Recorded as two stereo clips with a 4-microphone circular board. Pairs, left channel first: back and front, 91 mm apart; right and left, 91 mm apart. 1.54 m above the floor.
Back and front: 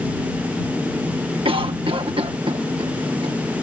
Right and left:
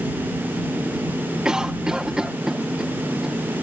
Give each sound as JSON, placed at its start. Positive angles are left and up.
{"t": 1.4, "sound": "a cough", "azimuth_deg": 10}